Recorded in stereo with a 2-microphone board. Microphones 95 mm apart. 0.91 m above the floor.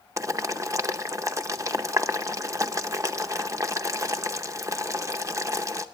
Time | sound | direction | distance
0.2 | boiling | 35° right (ahead or behind) | 0.6 m